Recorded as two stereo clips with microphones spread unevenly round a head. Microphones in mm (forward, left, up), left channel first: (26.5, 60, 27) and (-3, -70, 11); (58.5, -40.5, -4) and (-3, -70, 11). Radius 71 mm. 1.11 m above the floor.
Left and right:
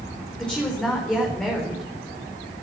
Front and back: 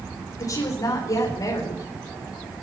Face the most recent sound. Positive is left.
turn(degrees=-5)